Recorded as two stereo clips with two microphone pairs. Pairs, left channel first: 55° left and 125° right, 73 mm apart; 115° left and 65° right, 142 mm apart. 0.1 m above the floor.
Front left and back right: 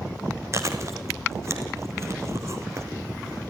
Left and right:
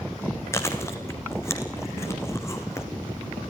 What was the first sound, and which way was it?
Chewing, 175° right.